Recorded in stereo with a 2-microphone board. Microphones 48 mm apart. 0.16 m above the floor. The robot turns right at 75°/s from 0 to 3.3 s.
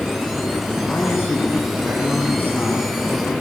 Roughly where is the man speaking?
Ahead.